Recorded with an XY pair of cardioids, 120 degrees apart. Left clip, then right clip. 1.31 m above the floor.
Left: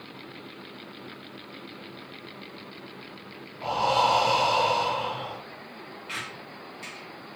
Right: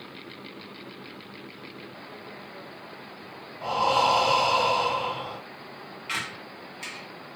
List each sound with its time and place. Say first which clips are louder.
3.6 s breathing: right 1 dB; 5° right, 1.9 m
6.1 s a squeak: right 4 dB; 35° right, 0.7 m